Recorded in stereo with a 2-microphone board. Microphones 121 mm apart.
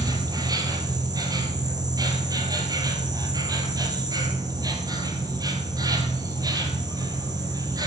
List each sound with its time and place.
0.0 s an insect: 35° right (ahead or behind), 2.0 m